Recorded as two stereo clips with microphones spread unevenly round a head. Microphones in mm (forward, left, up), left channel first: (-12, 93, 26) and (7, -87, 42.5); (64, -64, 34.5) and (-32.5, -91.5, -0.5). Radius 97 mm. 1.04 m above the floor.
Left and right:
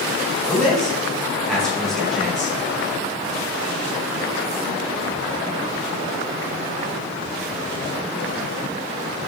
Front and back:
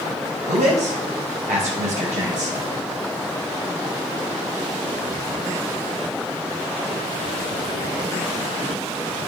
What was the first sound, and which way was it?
A man speaking, 175° right.